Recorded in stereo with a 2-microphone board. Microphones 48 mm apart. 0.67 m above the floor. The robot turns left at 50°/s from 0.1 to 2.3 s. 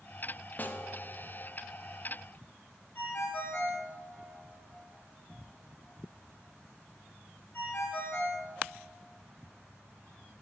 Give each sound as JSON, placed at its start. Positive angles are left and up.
{"t": 0.6, "sound": "a snare drum", "side_deg": 35, "distance_m": 0.7}
{"t": 3.0, "sound": "a ringtone", "side_deg": 40, "distance_m": 2.0}